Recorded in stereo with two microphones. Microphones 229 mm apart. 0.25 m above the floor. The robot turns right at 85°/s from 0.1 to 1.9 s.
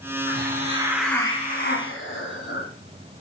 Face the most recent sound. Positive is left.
turn(degrees=75)